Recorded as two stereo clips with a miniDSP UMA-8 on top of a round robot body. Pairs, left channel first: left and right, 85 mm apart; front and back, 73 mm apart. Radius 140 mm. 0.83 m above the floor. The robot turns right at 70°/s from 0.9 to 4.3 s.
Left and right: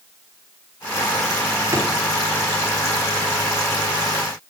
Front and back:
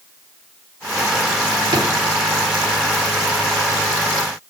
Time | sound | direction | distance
1.7 | a drawer | 150° right | 1.1 m